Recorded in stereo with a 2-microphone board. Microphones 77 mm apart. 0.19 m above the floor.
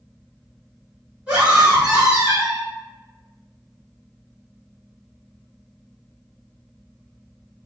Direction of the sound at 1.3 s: 20° right (ahead or behind).